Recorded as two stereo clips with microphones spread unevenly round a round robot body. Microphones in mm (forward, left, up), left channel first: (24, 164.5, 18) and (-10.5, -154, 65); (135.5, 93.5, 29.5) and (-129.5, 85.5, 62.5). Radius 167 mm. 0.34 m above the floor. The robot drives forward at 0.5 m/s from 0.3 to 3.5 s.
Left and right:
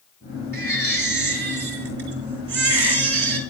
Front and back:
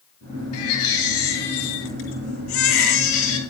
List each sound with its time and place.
0.5 s a baby crying: 35° right, 5 m; by 3.4 s 45° right, 4 m